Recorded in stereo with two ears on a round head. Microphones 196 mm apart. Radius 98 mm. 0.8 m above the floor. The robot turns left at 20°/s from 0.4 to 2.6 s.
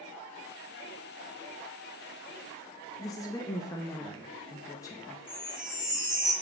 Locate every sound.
3.0 s a woman speaking: 15° left (ahead or behind), 0.7 m
5.3 s a chime: 5° right (ahead or behind), 4 m